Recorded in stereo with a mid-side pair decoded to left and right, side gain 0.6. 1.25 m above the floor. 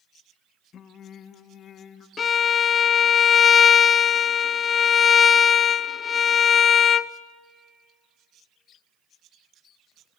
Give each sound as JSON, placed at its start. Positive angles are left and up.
{"t": 0.7, "sound": "singing", "azimuth_deg": 50, "distance_m": 1.3}
{"t": 2.2, "sound": "a violin", "azimuth_deg": 40, "distance_m": 0.6}